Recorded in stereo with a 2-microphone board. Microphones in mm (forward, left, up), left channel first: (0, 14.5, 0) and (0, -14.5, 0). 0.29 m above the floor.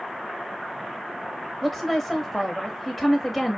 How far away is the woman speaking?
About 1.0 m.